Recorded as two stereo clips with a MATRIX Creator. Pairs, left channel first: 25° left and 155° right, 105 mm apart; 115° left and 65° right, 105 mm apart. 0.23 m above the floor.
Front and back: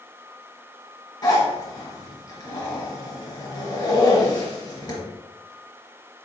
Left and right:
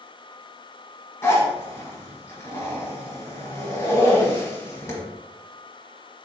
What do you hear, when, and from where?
1.2 s a zipper: 55° left, 1.1 m